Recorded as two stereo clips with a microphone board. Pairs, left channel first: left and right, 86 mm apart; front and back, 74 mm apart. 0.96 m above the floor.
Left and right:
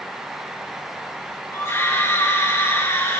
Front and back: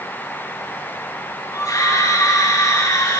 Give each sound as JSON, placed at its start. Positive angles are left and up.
{"t": 1.5, "sound": "a scream", "azimuth_deg": 35, "distance_m": 5.5}